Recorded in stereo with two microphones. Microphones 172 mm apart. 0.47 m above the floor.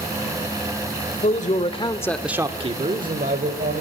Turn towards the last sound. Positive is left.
turn(degrees=-70)  # may be behind; listen again after turning